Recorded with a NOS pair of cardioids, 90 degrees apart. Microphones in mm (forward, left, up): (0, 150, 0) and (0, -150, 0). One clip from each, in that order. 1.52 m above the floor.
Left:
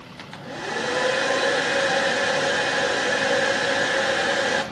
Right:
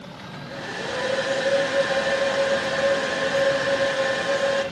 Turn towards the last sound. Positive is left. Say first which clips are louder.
# left 2 dB
turn(degrees=50)